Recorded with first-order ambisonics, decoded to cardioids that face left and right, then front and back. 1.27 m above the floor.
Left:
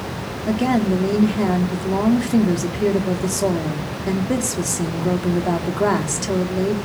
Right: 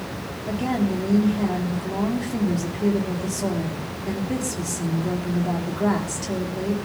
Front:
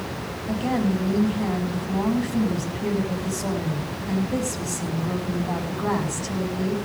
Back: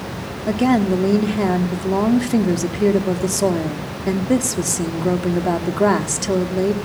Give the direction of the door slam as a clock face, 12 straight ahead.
I don't hear a door slam.